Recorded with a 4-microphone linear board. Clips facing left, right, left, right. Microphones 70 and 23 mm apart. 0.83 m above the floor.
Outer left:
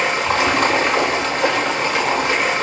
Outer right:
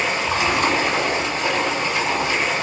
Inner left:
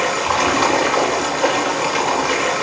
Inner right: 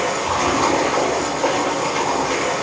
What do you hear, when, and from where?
0.0 s running water: 75° left (ahead or behind), 3 m